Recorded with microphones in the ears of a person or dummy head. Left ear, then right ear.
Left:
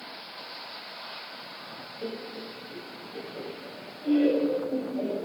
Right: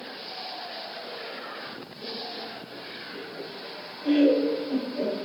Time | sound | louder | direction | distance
2.0 | laughter | right 2 dB | 30° left (ahead or behind) | 1.0 m